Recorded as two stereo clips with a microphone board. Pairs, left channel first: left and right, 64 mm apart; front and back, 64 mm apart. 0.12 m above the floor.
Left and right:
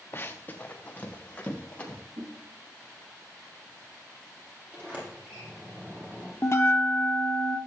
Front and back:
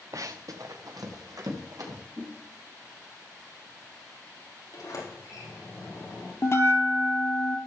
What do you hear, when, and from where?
0.1 s running footsteps: 145° left, 0.8 m; by 2.0 s 160° left, 3.5 m
2.2 s a whoosh: 105° right, 2 m
4.7 s a sliding door: 25° right, 4.5 m
6.4 s a bell: 45° left, 1.3 m